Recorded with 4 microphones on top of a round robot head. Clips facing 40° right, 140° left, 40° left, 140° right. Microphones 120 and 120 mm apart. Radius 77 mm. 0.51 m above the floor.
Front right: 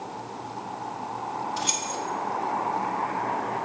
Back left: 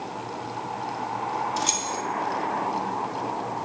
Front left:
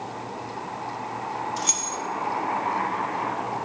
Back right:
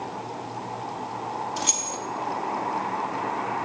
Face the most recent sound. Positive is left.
turn(degrees=165)